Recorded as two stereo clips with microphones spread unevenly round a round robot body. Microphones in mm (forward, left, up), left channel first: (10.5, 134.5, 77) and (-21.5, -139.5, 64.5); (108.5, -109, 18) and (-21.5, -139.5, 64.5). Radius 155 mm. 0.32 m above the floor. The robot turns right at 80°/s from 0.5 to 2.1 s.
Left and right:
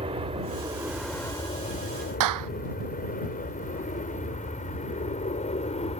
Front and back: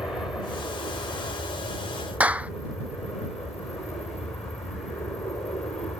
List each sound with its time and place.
0.0 s an aircraft: 50° right; by 6.0 s 45° left
2.2 s a clap: 85° right